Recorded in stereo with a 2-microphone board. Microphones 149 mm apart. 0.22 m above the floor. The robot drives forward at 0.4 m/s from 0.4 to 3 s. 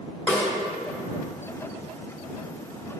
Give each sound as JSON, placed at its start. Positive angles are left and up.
{"t": 0.3, "sound": "a snare drum", "side_deg": 10, "distance_m": 2.0}